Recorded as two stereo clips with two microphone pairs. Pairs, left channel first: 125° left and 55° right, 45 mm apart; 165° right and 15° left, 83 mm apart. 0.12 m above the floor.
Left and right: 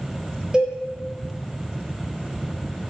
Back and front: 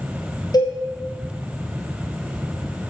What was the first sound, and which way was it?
A cowbell, 135° right.